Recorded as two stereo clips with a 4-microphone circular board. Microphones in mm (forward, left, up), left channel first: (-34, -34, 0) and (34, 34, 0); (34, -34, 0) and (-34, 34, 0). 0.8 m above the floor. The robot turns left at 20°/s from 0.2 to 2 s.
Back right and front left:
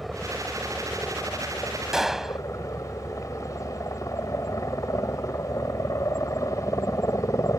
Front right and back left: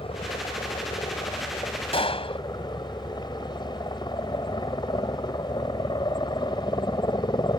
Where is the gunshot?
40° right.